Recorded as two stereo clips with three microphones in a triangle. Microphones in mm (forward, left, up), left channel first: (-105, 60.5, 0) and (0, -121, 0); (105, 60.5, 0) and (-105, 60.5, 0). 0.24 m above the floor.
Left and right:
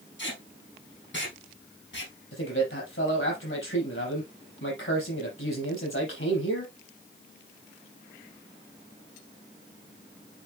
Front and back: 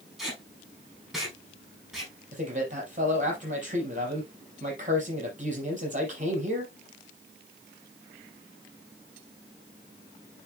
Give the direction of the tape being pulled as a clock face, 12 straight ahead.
9 o'clock.